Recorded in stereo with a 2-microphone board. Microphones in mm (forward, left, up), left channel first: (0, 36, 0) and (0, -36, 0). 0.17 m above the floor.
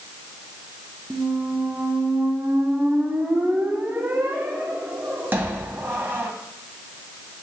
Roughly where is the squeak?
Right.